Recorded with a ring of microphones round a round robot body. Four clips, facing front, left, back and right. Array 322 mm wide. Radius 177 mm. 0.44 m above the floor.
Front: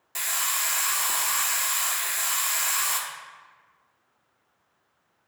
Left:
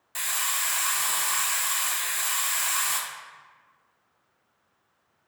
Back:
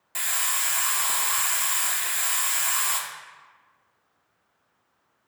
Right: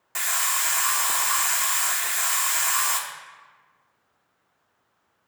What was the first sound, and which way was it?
A hiss, 95° right.